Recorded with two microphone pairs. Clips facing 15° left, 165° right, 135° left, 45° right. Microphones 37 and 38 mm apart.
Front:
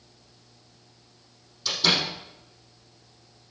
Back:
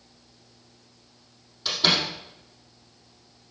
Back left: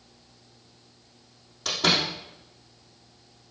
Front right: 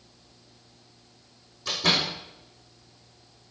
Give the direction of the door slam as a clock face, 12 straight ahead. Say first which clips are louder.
Back 1 dB, back left 1 dB; 8 o'clock.